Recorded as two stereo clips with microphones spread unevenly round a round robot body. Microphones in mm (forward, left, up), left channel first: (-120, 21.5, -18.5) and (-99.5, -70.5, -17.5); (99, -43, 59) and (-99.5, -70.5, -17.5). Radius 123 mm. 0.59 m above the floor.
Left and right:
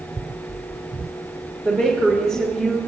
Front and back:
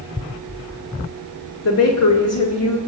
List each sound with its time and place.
1.6 s a woman speaking: straight ahead, 2 m